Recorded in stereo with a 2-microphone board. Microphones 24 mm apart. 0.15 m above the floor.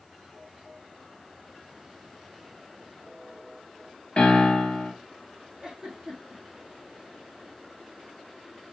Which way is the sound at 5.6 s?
30° right (ahead or behind).